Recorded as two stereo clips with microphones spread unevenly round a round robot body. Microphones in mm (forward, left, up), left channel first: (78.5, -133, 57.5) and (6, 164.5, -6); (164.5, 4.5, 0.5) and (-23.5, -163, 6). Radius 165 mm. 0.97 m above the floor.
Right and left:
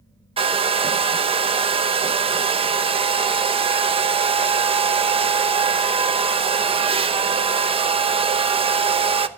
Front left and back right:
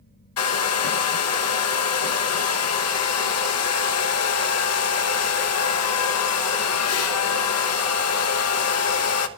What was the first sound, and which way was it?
A hair dryer, 40° left.